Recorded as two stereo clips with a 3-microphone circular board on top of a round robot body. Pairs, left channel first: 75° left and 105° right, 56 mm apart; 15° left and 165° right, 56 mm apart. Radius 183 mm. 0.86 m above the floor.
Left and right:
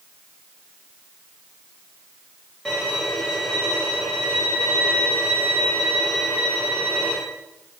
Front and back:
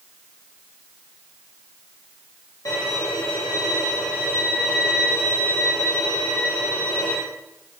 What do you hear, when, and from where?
2.6 s a violin: 10° right, 0.7 m